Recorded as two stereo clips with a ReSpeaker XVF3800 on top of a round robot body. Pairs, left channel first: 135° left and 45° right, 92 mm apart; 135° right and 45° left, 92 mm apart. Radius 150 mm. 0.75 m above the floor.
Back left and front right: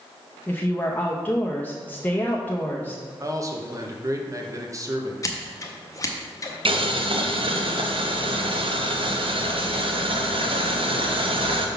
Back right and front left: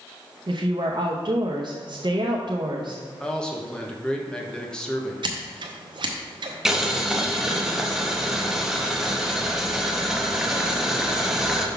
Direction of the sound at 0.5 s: 65° left.